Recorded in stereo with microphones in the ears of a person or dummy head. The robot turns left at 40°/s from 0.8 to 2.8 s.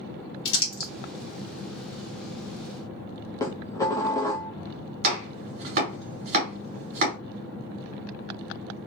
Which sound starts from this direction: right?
Chopping, at 5.0 s.